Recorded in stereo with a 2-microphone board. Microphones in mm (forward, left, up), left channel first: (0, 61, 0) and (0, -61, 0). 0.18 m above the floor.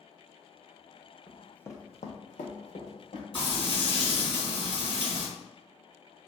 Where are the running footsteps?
15° right (ahead or behind), 0.7 m; by 3.2 s 70° left (ahead or behind), 1.6 m.